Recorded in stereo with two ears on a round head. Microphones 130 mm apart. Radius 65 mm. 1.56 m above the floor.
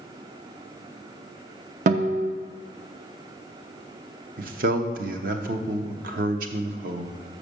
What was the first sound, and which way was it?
A guitar, 55° right (ahead or behind).